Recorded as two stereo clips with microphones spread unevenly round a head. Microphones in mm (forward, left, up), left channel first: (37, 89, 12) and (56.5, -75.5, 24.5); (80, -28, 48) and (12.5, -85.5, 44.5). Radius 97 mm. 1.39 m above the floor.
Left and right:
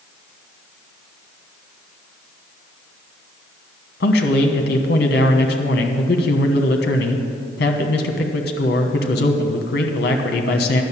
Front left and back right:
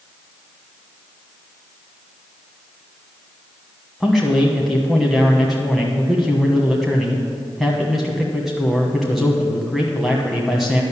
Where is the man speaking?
135° left, 1.1 m.